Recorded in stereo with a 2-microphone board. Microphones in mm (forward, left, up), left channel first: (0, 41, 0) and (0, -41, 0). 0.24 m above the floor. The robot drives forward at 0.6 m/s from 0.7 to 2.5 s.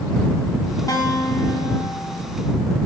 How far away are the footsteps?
No footsteps in this recording.